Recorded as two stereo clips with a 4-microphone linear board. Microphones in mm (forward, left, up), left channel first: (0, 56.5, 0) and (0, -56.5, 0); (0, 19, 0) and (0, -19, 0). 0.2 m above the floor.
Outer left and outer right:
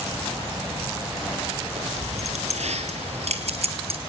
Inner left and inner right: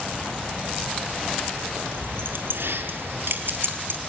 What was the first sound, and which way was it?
Keys jangling, 75° right (ahead or behind).